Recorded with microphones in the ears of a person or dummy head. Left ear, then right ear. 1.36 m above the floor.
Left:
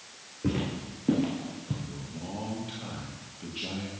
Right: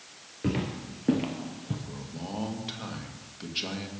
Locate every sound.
0.4 s footsteps: 20° right (ahead or behind), 1.4 m; by 1.8 s 15° right (ahead or behind), 2.0 m
1.9 s a man speaking: 60° right (ahead or behind), 1.9 m